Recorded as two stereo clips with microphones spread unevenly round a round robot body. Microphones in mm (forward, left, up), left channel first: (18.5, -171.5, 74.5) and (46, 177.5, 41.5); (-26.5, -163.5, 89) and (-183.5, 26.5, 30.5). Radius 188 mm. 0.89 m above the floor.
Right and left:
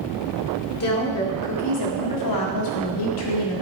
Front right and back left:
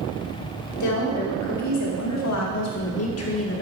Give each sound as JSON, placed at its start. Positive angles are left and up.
{"t": 0.8, "sound": "a woman speaking", "azimuth_deg": -45, "distance_m": 3.0}